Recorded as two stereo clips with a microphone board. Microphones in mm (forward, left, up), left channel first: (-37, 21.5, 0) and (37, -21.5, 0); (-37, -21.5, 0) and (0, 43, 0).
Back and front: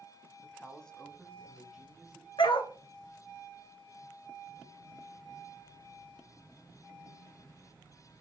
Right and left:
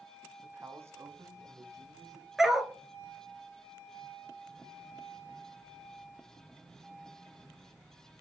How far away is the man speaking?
About 1.1 m.